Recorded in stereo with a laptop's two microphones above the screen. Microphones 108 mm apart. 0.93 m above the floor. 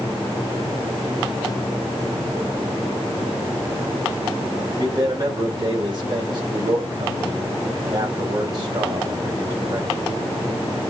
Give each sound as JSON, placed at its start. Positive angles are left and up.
{"t": 4.8, "sound": "a man speaking", "side_deg": -45, "distance_m": 4.0}